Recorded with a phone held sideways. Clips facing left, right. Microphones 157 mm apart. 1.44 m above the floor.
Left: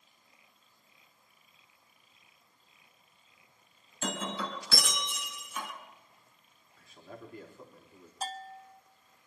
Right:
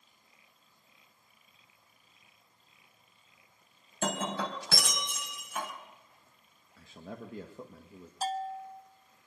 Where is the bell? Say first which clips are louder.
Right 7 dB; 5° right (ahead or behind), 0.9 m.